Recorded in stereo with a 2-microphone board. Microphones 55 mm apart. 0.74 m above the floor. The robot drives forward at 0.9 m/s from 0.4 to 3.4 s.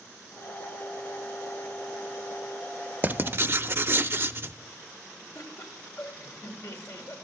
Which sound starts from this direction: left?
Laughter, at 5.3 s.